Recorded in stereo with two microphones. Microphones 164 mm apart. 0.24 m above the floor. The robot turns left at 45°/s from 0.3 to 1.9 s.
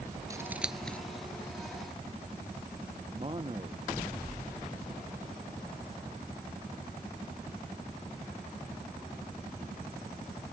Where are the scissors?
20° right (ahead or behind); by 1.0 s 10° left (ahead or behind).